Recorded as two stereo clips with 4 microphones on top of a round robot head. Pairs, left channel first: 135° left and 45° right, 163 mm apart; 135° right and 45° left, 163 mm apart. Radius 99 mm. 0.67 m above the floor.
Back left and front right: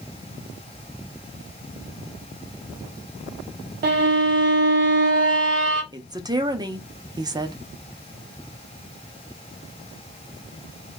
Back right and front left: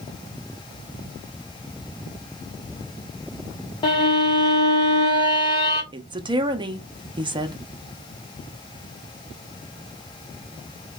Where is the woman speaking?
5° left, 0.6 m.